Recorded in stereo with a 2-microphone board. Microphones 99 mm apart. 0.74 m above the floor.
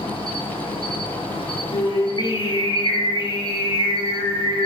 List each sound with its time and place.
0.0 s an insect: 65° left (ahead or behind), 1.2 m
1.7 s singing: 45° left (ahead or behind), 1.0 m